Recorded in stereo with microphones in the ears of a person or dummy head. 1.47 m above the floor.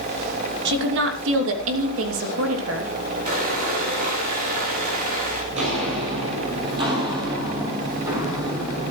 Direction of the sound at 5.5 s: 35° right (ahead or behind).